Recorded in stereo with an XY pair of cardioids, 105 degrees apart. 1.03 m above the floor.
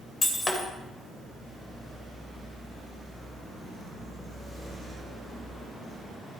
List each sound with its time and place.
0.2 s breaking glass: 30° left, 3 m